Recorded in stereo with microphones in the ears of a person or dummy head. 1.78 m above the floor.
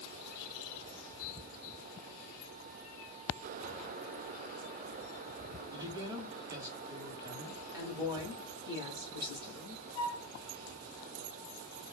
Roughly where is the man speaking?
Centre.